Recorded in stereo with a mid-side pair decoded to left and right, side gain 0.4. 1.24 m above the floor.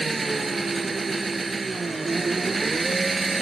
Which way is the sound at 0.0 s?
35° right.